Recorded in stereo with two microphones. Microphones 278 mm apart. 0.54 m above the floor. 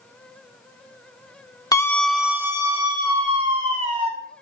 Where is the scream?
10° left (ahead or behind), 1.4 m; by 4.1 s 25° right (ahead or behind), 3 m.